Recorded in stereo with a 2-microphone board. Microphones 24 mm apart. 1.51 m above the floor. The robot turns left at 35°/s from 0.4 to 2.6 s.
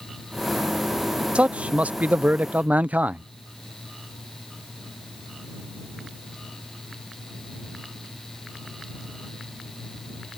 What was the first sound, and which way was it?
A man speaking, 50° right.